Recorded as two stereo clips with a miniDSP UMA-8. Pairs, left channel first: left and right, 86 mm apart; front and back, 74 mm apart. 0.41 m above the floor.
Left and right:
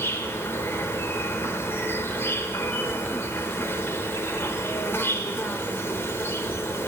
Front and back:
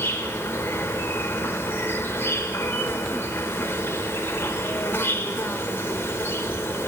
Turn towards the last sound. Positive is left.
turn(degrees=40)